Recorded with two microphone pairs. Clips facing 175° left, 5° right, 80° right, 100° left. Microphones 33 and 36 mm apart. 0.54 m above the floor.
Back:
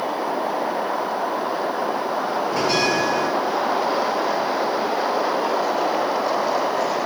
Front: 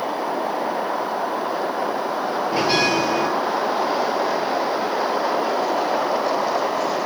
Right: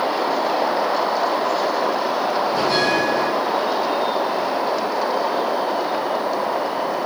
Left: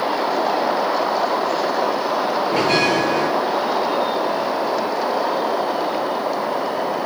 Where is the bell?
70° left, 10 m.